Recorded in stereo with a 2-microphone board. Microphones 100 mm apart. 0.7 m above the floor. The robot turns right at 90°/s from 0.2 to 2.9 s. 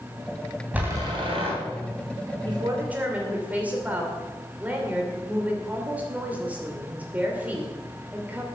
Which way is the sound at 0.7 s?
165° right.